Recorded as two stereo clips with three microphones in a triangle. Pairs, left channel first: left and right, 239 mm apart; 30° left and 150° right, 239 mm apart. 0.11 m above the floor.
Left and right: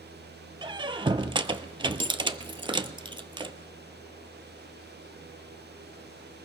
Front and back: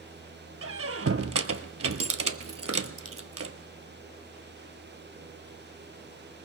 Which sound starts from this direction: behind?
A squeak, at 0.6 s.